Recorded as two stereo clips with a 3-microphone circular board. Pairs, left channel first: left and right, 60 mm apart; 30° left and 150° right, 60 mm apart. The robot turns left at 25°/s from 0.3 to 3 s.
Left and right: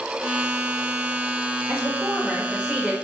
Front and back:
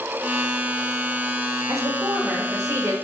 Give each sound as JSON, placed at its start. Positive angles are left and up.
{"t": 1.7, "sound": "a woman speaking", "azimuth_deg": -140, "distance_m": 1.1}